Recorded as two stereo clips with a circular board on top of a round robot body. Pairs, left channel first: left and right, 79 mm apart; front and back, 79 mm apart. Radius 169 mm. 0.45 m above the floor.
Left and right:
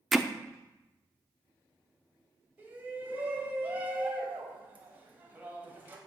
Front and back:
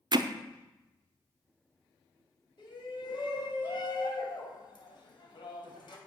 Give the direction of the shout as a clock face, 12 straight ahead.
1 o'clock.